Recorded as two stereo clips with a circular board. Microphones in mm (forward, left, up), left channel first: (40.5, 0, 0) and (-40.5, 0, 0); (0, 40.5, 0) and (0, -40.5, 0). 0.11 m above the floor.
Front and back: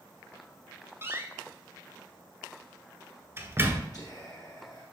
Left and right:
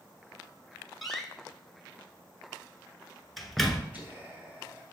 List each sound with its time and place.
1.0 s a door slam: 175° left, 1.0 m
3.9 s whispering: 25° right, 3 m